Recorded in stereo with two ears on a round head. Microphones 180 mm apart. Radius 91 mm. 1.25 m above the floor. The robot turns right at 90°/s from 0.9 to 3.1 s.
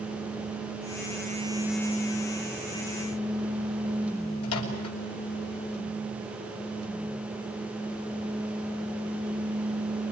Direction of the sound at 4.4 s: 85° left.